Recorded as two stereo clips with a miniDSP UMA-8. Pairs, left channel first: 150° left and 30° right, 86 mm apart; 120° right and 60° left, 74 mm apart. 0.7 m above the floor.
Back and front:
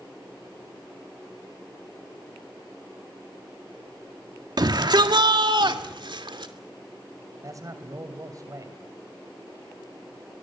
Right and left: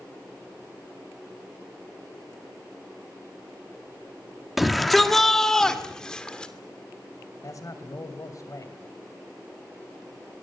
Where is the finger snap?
I don't hear a finger snap.